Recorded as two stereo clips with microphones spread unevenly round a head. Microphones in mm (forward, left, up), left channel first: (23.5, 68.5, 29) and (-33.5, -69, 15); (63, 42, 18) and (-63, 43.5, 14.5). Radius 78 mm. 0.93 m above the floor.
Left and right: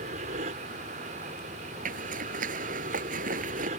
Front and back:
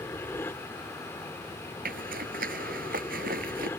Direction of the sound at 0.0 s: 75° right.